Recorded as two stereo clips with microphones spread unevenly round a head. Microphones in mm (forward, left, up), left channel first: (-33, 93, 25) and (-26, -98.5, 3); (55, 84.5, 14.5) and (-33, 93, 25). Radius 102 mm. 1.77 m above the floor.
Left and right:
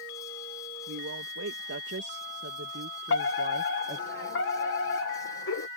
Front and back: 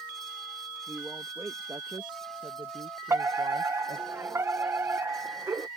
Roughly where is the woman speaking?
Right.